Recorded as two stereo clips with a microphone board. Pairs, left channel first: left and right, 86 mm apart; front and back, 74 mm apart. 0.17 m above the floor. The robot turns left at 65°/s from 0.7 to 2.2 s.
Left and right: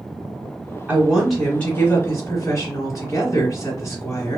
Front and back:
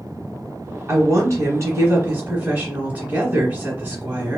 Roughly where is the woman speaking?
Behind right.